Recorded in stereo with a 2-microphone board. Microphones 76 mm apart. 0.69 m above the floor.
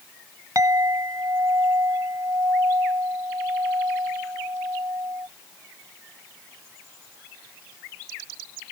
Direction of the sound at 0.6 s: 50° right (ahead or behind).